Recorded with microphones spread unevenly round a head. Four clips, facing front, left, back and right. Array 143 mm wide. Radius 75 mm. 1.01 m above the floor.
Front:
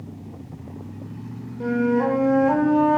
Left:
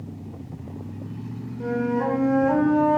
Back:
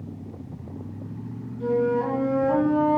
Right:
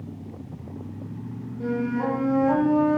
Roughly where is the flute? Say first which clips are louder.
Left 2 dB, front 2 dB; ahead.